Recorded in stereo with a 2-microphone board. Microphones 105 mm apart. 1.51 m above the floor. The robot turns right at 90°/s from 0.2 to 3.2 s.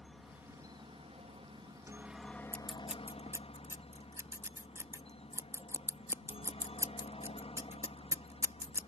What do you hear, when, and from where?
0.0 s a helicopter: straight behind; by 8.9 s 90° left
2.5 s scissors: 15° left (ahead or behind); by 8.9 s 25° right (ahead or behind)